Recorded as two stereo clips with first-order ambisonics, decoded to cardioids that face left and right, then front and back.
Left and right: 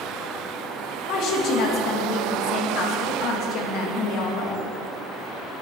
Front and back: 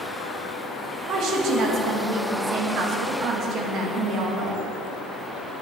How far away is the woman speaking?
About 2 m.